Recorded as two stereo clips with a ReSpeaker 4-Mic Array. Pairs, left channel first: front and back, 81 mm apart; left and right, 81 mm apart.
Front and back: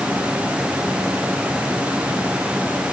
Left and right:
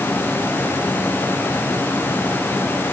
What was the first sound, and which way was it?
Only background noise.